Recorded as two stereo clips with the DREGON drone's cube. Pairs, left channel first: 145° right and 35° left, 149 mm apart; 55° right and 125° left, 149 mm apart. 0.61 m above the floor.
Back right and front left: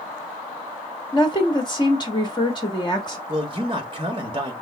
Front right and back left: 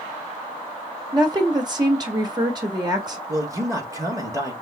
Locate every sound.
1.1 s a woman speaking: 170° left, 1.3 m
3.3 s a man speaking: 70° left, 1.3 m